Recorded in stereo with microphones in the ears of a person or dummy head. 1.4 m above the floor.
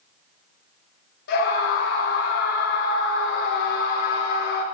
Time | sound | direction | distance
1.3 | a scream | 65° left (ahead or behind) | 5.5 m